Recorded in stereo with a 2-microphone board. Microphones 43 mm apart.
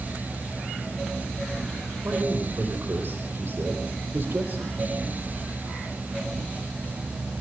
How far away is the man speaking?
About 4.5 m.